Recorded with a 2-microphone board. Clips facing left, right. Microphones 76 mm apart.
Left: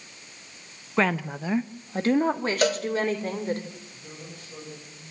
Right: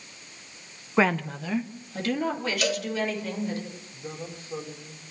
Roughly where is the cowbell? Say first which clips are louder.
Left 6 dB; left.